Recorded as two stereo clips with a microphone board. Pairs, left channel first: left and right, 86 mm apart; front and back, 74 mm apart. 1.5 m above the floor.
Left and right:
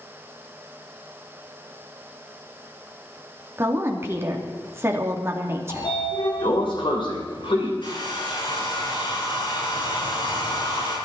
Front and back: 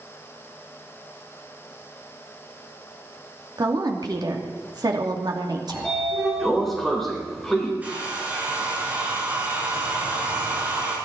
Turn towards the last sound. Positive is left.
turn(degrees=110)